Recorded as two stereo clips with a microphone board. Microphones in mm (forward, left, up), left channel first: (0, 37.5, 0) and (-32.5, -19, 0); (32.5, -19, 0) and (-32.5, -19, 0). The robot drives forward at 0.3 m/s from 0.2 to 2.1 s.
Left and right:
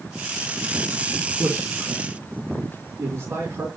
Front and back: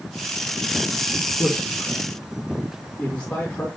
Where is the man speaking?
70° right, 4.5 m; by 3.7 s 75° right, 4 m.